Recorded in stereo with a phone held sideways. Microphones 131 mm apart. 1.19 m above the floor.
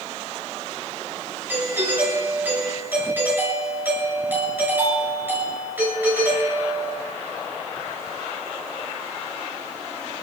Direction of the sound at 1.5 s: 15° right (ahead or behind).